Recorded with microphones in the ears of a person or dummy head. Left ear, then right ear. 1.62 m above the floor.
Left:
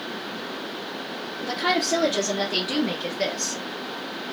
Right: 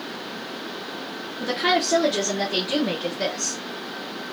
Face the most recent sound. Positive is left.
turn(degrees=20)  # may be behind; listen again after turning